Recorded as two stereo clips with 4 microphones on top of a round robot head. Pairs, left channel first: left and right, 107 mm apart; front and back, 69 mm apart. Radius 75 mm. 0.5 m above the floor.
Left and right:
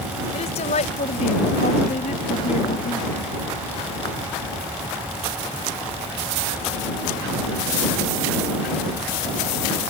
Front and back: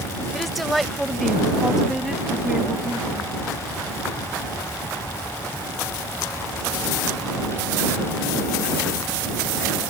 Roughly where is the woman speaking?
Left.